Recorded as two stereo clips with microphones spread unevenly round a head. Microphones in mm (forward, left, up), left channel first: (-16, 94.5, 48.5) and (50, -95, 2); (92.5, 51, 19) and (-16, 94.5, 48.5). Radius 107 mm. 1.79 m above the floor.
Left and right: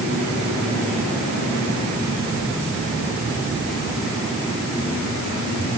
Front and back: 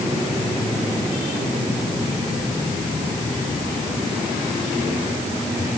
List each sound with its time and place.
Only background noise.